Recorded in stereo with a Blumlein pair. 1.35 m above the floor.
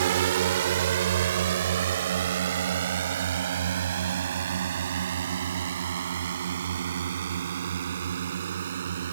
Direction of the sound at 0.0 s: 60° right.